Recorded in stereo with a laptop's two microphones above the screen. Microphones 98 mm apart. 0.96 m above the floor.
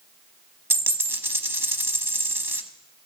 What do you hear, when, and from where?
0.7 s a dropped coin: 25° right (ahead or behind), 0.8 m